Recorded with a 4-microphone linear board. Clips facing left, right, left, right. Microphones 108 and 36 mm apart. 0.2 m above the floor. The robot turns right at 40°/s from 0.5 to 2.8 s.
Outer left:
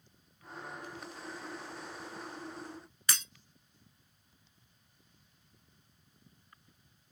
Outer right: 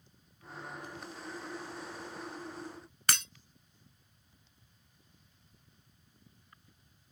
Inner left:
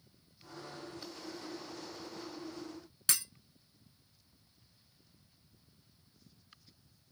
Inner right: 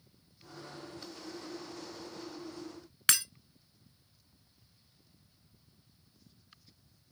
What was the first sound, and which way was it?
Breaking glass, 65° right (ahead or behind).